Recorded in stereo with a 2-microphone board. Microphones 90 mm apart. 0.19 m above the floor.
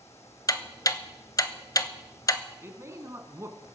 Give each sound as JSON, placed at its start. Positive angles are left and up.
{"t": 0.5, "sound": "ticking", "side_deg": 40, "distance_m": 0.7}
{"t": 2.6, "sound": "a man speaking", "side_deg": -30, "distance_m": 1.9}